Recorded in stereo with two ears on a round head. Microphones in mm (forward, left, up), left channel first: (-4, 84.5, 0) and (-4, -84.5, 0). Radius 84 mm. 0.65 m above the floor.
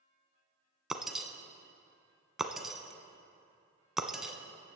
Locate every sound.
0.9 s breaking glass: centre (ahead or behind), 0.8 m